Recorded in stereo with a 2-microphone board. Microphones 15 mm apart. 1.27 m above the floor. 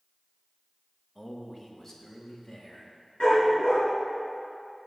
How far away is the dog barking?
About 5.5 m.